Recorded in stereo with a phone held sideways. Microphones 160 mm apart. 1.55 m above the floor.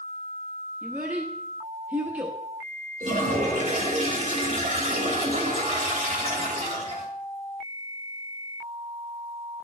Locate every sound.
0.8 s a child speaking: 10° right (ahead or behind), 0.9 m
3.0 s a toilet flushing: 50° right (ahead or behind), 2 m